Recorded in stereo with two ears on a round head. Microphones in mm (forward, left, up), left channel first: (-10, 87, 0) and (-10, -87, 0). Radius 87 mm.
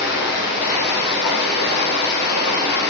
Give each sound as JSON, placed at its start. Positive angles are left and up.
{"t": 0.0, "sound": "running water", "side_deg": 55, "distance_m": 0.8}